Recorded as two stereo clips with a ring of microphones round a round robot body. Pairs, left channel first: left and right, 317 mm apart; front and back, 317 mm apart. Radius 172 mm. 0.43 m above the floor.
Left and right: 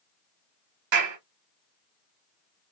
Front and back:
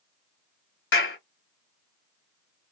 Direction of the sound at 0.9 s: 50° right.